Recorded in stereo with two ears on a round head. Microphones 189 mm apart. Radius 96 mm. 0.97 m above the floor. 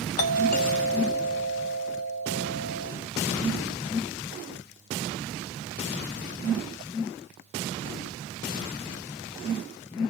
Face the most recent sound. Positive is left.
turn(degrees=35)  # may be behind; listen again after turning